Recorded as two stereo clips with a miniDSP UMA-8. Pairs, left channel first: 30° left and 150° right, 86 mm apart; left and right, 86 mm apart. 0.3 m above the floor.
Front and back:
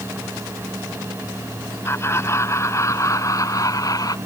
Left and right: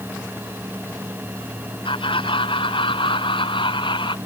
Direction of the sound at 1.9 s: 90° left.